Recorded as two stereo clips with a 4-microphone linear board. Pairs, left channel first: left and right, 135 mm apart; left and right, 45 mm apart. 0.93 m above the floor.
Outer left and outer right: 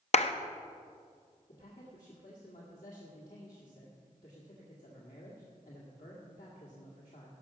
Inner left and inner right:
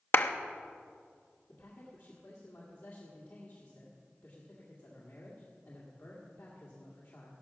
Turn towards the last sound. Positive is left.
turn(degrees=80)